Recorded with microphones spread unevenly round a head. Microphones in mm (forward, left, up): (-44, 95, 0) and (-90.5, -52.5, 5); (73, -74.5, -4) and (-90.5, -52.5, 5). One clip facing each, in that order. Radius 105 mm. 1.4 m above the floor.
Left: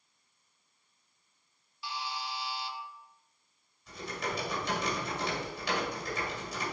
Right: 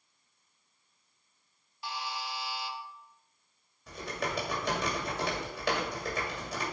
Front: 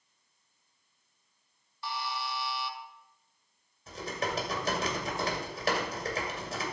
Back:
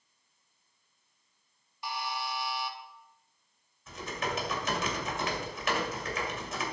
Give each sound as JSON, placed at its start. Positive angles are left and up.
{"t": 1.8, "sound": "a buzzer", "azimuth_deg": -120, "distance_m": 1.1}
{"t": 3.9, "sound": "typing on a keyboard", "azimuth_deg": -60, "distance_m": 2.0}